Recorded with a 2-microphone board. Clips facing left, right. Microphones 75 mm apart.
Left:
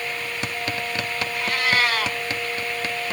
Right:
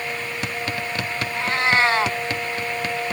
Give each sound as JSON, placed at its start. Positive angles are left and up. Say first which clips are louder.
{"t": 1.3, "sound": "a cat meowing", "louder": "right 3 dB", "side_deg": -30, "distance_m": 0.9}